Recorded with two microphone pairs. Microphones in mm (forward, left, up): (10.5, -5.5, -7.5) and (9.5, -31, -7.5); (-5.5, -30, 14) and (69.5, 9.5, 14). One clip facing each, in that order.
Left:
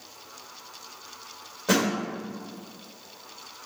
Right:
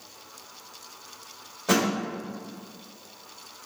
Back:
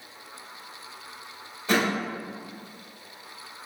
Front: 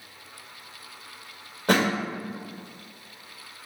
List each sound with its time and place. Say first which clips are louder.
1.7 s a thud: even, front 2 dB; straight ahead, 1.5 m